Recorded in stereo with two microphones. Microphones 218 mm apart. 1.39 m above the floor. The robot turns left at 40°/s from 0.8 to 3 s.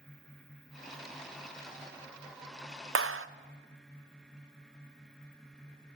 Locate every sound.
3.0 s a clap: 75° right (ahead or behind), 0.6 m